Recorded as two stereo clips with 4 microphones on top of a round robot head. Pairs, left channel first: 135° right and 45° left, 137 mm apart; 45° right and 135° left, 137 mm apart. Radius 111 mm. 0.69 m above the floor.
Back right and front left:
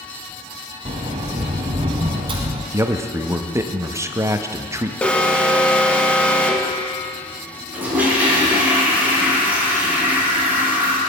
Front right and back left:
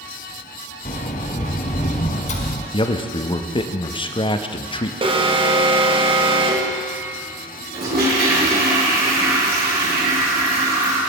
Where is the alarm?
150° left, 1.5 m.